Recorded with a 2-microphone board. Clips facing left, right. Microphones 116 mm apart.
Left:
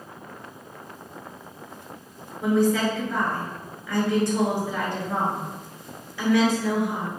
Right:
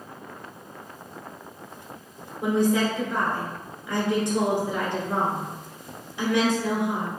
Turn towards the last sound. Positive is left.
turn(degrees=-20)  # may be behind; listen again after turning